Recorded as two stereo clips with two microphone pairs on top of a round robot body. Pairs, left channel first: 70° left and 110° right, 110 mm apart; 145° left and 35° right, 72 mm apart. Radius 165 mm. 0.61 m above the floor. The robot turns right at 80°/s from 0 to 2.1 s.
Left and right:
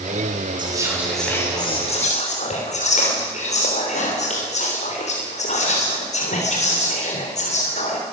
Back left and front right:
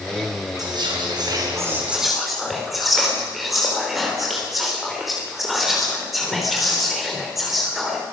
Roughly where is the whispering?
Right.